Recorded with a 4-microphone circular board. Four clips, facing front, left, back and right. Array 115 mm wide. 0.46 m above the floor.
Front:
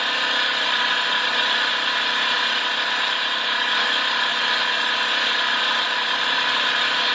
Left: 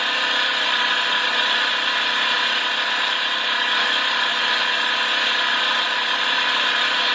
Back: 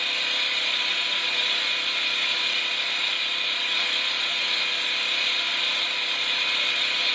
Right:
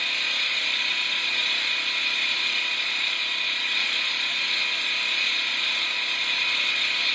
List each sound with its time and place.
0.0 s an engine running: 40° left, 1.0 m